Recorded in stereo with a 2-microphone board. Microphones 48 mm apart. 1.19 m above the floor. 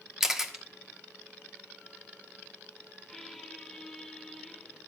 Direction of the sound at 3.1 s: 5° left (ahead or behind).